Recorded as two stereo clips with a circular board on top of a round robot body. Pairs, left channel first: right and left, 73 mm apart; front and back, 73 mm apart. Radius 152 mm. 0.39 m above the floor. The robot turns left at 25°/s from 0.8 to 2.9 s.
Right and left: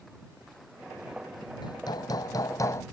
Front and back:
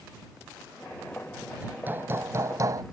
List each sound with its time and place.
1.6 s hammering: 110° right; by 2.8 s 140° right